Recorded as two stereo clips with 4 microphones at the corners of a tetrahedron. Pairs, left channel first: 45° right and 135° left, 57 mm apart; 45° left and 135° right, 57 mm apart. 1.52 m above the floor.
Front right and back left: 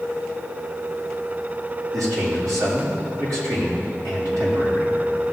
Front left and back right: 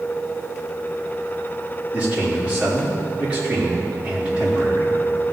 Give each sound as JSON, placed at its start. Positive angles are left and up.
{"t": 1.9, "sound": "a man speaking", "azimuth_deg": 155, "distance_m": 4.0}